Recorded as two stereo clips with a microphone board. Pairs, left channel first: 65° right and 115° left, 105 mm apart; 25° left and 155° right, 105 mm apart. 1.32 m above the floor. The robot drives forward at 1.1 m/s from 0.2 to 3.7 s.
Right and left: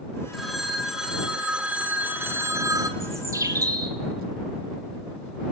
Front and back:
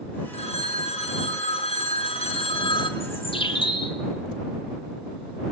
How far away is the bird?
About 3 m.